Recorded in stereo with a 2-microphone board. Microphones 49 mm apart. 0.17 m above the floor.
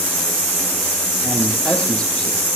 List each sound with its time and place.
1.2 s a man speaking: 15° left (ahead or behind), 5 m; by 2.5 s 20° left (ahead or behind), 5.5 m